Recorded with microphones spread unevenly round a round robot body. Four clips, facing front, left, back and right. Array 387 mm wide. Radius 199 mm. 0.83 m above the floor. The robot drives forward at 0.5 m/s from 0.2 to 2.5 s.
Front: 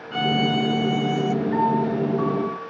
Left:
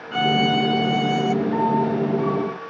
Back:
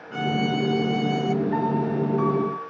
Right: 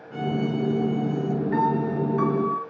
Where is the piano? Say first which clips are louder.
Left 3 dB, front 3 dB; 80° right, 3.5 m; by 2.6 s 85° right, 3.5 m.